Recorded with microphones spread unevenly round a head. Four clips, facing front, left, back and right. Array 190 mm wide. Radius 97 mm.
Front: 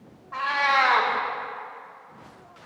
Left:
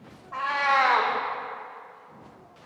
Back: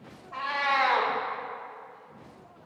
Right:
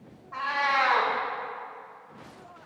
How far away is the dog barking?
No dog barking in this recording.